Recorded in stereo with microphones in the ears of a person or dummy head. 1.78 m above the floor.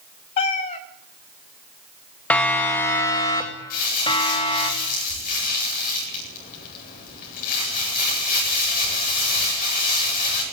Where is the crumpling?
50° left (ahead or behind), 9 m.